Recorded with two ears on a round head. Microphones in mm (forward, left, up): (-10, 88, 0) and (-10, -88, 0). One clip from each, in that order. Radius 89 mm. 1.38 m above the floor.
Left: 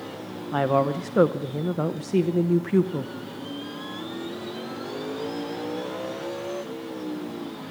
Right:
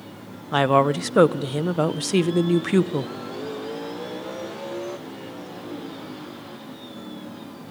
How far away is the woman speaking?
About 0.8 m.